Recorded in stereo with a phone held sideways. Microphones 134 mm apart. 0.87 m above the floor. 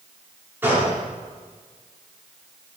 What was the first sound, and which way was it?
A gunshot, 15° right (ahead or behind).